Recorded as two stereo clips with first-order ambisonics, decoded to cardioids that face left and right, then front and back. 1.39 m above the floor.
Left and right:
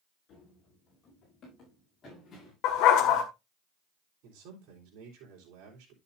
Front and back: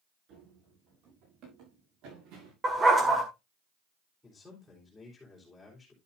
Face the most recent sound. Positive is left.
turn(degrees=-85)